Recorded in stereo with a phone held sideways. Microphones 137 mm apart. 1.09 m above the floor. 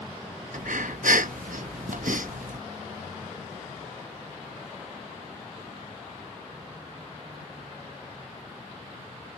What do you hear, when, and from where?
0.5 s breathing: 80° right